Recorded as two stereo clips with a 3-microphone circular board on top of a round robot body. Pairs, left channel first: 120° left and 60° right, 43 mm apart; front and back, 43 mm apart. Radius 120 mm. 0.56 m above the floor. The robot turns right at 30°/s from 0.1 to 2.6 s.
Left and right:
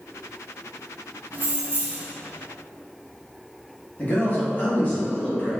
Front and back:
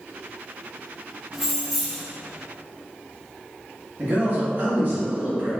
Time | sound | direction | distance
1.3 | keys jangling | 100° right | 0.7 m
4.0 | a man speaking | 150° left | 1.4 m